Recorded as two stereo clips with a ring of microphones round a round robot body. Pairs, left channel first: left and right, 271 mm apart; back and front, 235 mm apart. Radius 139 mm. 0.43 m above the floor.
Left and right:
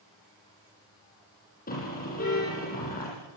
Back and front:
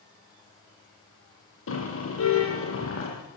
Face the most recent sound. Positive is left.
turn(degrees=150)